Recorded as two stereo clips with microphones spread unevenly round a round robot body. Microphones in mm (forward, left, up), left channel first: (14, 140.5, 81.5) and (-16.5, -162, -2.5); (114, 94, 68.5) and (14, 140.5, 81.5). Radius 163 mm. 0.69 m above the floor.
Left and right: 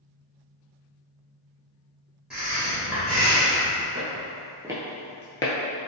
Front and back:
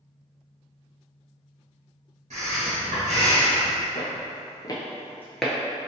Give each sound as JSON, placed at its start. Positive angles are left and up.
{"t": 2.3, "sound": "breathing", "azimuth_deg": 180, "distance_m": 1.7}
{"t": 4.0, "sound": "footsteps", "azimuth_deg": -20, "distance_m": 0.9}